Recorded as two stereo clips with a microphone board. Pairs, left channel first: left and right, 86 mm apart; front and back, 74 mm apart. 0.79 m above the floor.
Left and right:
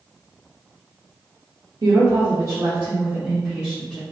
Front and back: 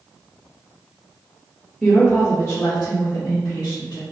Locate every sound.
1.8 s a woman speaking: 80° right, 0.8 m; by 4.0 s 10° left, 1.1 m